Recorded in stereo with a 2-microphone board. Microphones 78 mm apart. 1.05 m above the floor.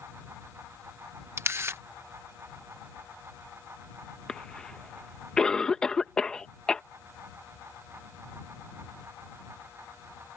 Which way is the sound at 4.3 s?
10° left (ahead or behind).